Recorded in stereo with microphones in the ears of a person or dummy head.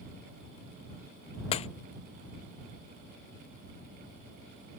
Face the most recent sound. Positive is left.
turn(degrees=25)  # may be behind; listen again after turning